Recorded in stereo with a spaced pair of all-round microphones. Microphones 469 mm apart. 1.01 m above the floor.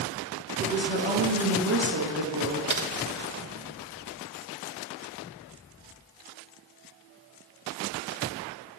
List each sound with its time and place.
0.6 s a woman speaking: 65° right (ahead or behind), 1.3 m
2.7 s typing on a keyboard: 80° right, 0.7 m